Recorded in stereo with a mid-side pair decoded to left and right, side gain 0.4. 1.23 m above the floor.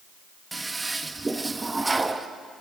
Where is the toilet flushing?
20° right, 1.3 m.